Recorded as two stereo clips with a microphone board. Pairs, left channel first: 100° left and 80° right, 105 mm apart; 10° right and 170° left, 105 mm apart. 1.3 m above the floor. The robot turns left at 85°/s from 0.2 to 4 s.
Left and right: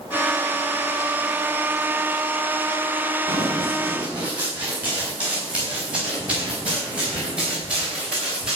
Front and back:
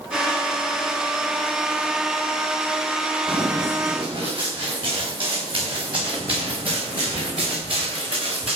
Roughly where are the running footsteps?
Right.